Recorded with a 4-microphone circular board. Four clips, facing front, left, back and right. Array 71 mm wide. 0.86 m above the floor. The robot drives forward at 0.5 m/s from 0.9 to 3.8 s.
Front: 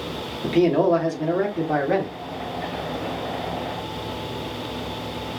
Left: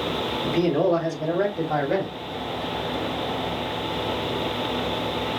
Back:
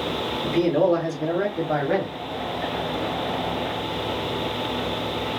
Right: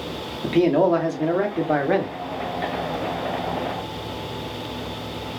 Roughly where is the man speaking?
Right.